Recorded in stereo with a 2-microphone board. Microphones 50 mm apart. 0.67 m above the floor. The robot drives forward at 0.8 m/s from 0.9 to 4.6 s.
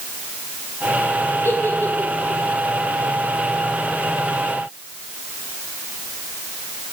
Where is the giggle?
70° left (ahead or behind), 3 m; by 2.4 s 55° left (ahead or behind), 3.5 m.